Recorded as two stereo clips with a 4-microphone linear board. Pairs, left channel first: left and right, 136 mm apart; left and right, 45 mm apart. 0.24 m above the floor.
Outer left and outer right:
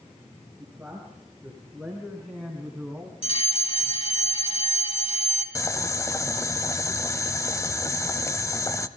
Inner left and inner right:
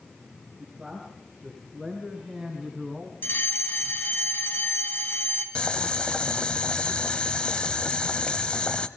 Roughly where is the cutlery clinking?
I don't hear cutlery clinking.